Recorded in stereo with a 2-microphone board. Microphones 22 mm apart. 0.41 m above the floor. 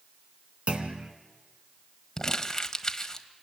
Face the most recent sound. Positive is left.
turn(degrees=25)  # may be behind; listen again after turning